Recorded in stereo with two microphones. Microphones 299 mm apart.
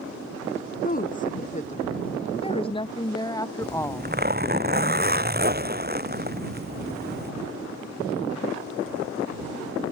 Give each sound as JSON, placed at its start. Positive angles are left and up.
{"t": 0.8, "sound": "a woman speaking", "side_deg": 30}
{"t": 3.6, "sound": "a zipper", "side_deg": -30}